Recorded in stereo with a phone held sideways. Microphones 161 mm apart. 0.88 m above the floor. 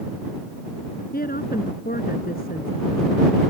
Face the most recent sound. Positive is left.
turn(degrees=65)  # may be behind; listen again after turning